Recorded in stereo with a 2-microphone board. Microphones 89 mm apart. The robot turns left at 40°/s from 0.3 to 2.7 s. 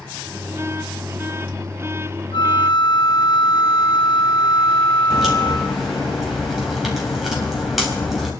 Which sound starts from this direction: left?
A flute, at 2.3 s.